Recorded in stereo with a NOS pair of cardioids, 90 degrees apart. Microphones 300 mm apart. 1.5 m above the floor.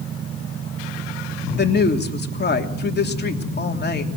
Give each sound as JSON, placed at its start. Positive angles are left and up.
{"t": 1.6, "sound": "a woman speaking", "azimuth_deg": 35, "distance_m": 3.0}